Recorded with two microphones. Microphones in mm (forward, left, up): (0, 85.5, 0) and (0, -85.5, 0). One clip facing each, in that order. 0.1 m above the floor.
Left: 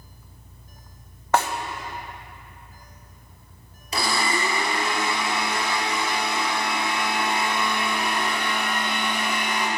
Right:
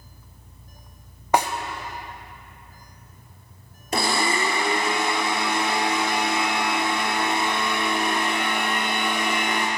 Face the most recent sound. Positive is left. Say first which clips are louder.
# right 2 dB
turn(degrees=-55)  # may be behind; listen again after turning